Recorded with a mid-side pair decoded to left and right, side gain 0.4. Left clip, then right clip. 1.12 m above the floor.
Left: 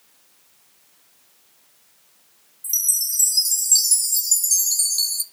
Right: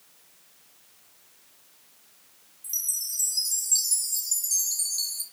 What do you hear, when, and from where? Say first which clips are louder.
2.6 s a chime: left 8 dB; 60° left, 0.8 m